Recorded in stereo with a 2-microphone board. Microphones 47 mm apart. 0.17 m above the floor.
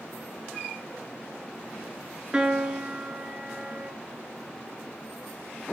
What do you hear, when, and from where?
2.3 s a piano: 20° right (ahead or behind), 0.8 m